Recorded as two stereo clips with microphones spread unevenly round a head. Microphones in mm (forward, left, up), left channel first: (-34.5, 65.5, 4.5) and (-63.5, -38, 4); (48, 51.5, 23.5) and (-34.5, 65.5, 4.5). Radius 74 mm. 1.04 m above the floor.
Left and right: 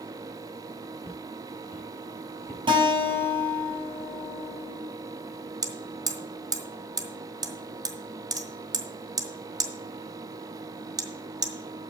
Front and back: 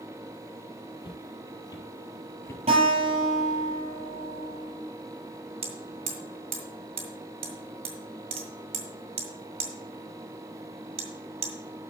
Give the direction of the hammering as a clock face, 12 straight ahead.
5 o'clock.